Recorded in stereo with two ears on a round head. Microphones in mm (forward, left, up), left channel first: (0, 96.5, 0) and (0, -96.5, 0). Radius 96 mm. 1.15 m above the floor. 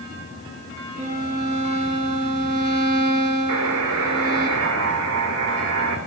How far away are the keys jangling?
No keys jangling in this recording.